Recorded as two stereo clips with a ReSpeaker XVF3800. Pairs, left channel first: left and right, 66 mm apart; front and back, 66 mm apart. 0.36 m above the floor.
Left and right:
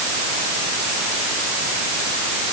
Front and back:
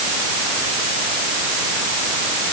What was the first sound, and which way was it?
Only background noise.